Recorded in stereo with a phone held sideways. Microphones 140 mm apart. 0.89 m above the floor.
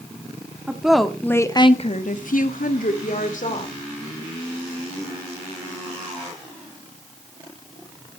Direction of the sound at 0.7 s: 10° right (ahead or behind).